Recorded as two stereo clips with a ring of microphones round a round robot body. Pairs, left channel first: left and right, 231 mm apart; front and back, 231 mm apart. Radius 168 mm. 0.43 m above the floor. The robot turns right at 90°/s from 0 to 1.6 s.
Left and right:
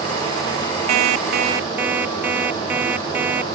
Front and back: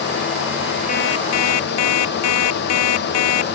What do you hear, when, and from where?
0.9 s an alarm clock: 70° right; by 3.5 s 5° right